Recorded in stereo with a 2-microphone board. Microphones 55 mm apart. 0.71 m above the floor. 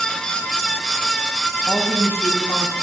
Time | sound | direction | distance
1.6 | a woman speaking | 20° left (ahead or behind) | 0.9 m